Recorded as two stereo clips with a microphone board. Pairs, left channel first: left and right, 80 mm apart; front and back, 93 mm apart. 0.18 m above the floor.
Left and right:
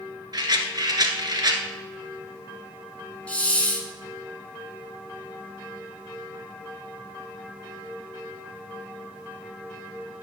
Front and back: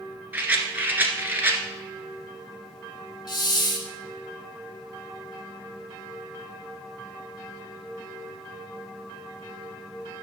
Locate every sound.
0.3 s a rattle: 110° right, 1.3 m
3.3 s a hiss: 20° left, 1.5 m